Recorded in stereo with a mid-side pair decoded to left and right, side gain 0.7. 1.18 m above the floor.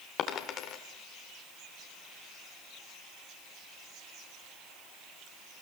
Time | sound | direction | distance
0.2 | a dropped coin | 50° left | 2 m